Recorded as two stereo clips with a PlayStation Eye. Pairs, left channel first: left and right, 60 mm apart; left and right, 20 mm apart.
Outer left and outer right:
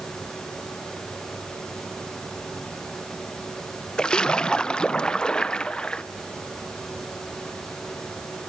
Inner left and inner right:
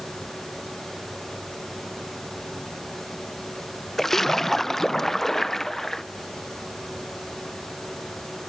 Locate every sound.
4.0 s a splash: 15° left (ahead or behind), 0.7 m